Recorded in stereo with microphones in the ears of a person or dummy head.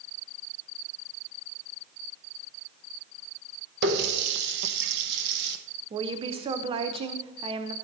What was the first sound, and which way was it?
A running tap, 60° right (ahead or behind).